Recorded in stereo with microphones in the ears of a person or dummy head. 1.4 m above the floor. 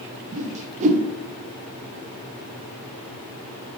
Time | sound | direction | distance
0.3 | a whoosh | 35° right (ahead or behind) | 0.7 m